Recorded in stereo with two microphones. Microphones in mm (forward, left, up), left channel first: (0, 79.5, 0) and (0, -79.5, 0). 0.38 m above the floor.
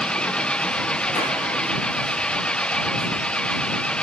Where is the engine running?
5° left (ahead or behind).